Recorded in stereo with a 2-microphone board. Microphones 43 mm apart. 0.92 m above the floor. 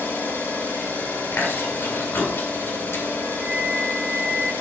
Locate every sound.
0.0 s an engine running: 65° left (ahead or behind), 4 m
1.3 s chewing: 80° left, 2 m
3.4 s a flute: 35° left (ahead or behind), 2.5 m